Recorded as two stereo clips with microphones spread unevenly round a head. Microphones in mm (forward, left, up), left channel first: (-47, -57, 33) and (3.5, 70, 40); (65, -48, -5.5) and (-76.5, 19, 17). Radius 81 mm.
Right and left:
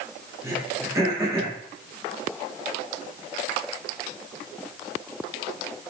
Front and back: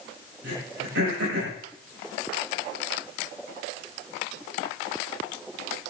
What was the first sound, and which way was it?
Throat clearing, 140° left.